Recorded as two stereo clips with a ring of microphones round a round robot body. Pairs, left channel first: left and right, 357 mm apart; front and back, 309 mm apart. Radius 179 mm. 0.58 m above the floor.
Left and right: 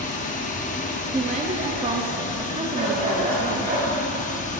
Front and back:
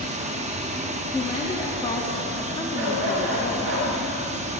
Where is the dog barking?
160° right, 3 m.